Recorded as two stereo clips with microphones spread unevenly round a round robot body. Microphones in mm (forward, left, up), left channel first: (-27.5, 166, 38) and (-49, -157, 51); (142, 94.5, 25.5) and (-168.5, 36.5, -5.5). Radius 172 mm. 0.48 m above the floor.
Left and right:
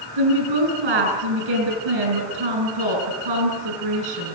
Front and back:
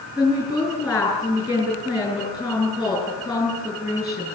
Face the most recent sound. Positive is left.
turn(degrees=-80)